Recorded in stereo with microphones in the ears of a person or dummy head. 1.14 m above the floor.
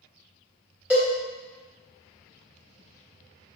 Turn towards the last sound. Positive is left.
turn(degrees=-10)  # may be behind; listen again after turning